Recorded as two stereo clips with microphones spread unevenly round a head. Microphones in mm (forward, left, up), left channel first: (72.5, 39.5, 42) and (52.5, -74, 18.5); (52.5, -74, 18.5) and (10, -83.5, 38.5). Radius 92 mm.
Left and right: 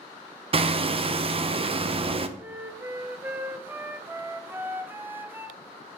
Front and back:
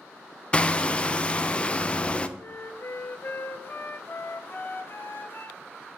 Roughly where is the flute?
Ahead right.